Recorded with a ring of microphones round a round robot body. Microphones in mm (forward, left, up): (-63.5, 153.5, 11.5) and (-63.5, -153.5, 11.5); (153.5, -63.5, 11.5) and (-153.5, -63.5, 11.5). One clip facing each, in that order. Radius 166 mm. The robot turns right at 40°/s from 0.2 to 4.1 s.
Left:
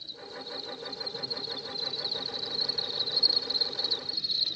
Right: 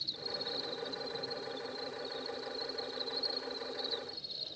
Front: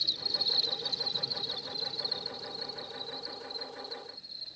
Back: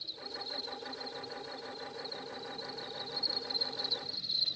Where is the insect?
15° right, 0.8 m; by 4.6 s 140° left, 0.8 m.